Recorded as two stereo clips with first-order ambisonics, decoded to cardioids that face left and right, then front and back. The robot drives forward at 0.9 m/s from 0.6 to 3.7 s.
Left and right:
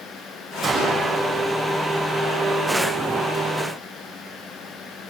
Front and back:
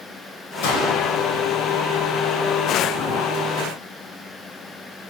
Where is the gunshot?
Straight ahead, 6.5 m.